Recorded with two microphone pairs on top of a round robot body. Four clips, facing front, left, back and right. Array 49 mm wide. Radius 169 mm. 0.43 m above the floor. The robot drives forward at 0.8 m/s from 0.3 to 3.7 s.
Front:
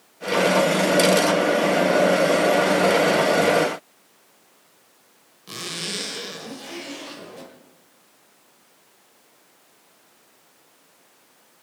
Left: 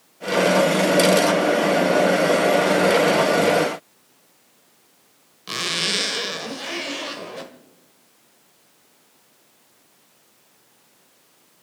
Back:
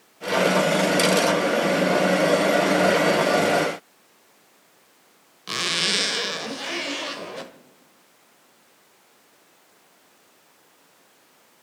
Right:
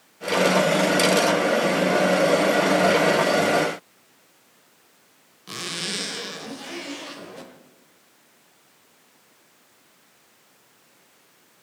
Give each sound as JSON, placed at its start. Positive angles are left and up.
{"t": 5.5, "sound": "a zipper", "azimuth_deg": 145, "distance_m": 1.2}